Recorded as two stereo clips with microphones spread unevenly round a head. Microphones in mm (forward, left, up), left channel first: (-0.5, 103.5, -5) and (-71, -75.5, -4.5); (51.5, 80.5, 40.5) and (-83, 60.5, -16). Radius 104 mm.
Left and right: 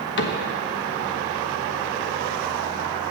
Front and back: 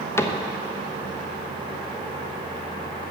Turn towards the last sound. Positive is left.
turn(degrees=90)